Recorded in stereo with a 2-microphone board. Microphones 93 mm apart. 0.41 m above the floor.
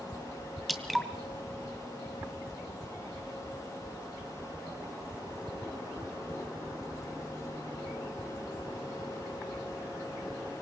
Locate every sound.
0.7 s dripping: centre (ahead or behind), 2.0 m